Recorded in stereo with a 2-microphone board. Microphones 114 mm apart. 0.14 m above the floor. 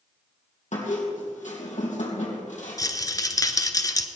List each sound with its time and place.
0.7 s a squeak: 75° left (ahead or behind), 3 m
2.8 s a rattle: 30° left (ahead or behind), 0.8 m